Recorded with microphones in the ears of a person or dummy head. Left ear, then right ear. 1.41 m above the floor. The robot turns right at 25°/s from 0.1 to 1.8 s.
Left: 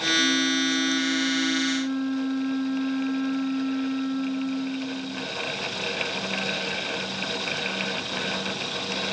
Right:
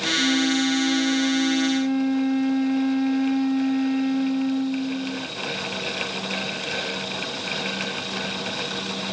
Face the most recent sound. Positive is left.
turn(degrees=-80)